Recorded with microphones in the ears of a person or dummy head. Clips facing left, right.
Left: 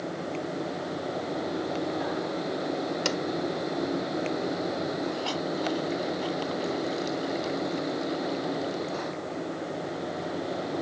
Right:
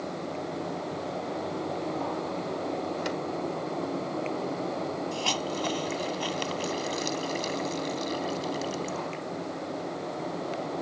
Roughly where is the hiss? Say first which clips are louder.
Left 1 dB; right.